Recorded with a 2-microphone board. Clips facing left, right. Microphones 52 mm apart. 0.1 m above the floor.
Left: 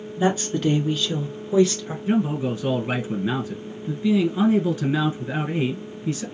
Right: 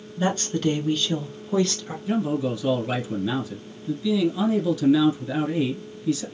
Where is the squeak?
I don't hear a squeak.